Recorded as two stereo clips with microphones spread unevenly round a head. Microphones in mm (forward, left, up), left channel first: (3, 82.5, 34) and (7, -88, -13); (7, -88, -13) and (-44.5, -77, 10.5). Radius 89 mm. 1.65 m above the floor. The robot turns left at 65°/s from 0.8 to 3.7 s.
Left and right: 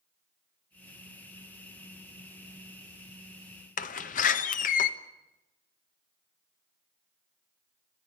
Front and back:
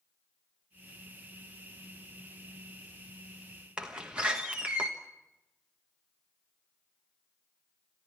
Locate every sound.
3.8 s a door slam: 110° left, 1.2 m